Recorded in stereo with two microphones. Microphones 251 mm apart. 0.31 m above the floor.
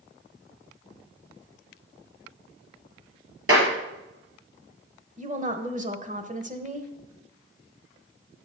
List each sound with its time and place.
3.5 s a clap: 60° right (ahead or behind), 4 m
5.2 s a woman speaking: 30° right (ahead or behind), 1.1 m